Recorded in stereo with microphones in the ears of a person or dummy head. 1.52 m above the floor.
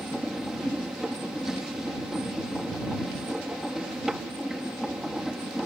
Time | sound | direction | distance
0.0 | a machine running | 5° right (ahead or behind) | ?